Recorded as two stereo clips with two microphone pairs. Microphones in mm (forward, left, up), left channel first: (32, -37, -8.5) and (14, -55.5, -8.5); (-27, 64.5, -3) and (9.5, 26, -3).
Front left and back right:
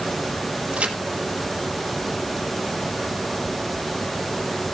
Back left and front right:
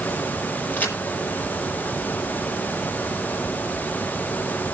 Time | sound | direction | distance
0.7 | a crack | 175° right | 4.5 m